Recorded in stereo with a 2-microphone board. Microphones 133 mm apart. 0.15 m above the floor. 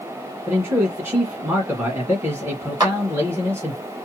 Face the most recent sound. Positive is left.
turn(degrees=-30)  # may be behind; listen again after turning